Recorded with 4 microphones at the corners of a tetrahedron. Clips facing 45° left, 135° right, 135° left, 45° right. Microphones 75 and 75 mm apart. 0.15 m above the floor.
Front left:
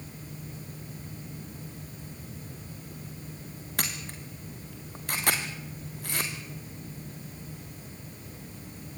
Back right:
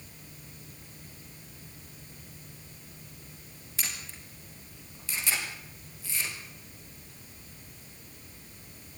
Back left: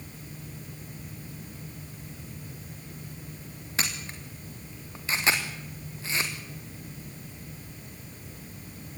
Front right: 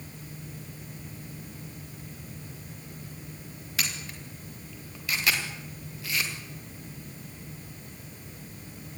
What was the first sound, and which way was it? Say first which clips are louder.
A camera shutter: front left 5 dB, back left 2 dB; 75° left.